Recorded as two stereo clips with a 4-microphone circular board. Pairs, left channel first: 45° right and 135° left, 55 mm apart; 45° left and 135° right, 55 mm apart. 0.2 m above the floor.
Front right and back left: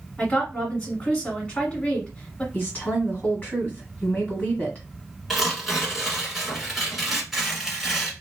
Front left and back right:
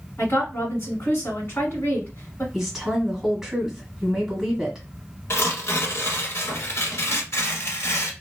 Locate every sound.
0.2 s a woman speaking: 15° left, 1.4 m
2.5 s a woman speaking: 60° right, 1.5 m
5.3 s tearing paper: 50° left, 1.1 m